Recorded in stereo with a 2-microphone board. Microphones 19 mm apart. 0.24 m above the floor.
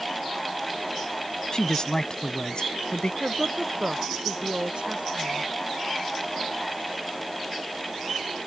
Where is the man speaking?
40° left (ahead or behind); by 3.1 s 55° left (ahead or behind).